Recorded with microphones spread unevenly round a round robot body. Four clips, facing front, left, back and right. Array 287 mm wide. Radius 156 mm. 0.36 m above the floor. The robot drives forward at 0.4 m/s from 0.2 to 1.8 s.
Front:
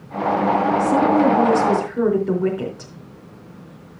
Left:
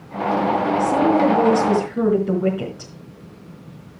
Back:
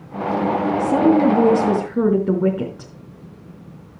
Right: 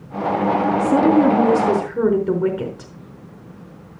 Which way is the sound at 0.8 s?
155° right.